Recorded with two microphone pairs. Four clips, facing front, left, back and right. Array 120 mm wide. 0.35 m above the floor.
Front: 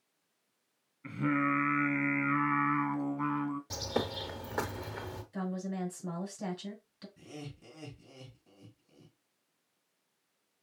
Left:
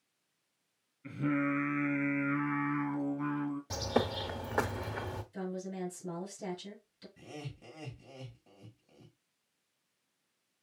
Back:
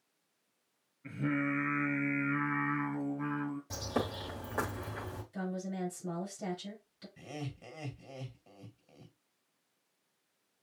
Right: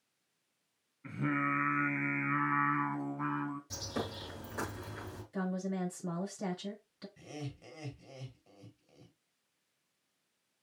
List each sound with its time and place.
1.0 s singing: 35° right, 2.0 m
3.7 s a bird: 95° left, 1.1 m
5.3 s a woman speaking: 55° right, 4.5 m
7.2 s laughter: 175° left, 2.0 m